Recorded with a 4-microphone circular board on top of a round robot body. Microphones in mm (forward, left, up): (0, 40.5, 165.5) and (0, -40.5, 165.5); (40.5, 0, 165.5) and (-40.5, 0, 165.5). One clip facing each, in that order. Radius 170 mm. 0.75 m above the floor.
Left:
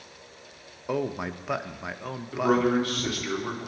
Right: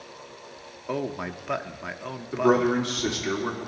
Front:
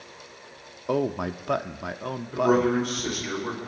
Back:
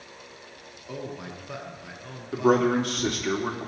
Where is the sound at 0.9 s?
5° left, 0.7 m.